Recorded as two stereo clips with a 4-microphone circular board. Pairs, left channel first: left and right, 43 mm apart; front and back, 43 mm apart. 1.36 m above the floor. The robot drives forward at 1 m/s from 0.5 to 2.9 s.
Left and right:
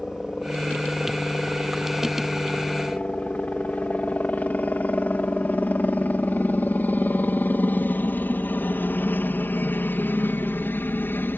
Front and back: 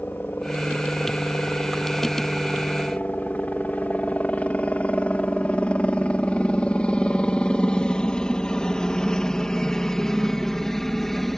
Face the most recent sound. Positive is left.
turn(degrees=85)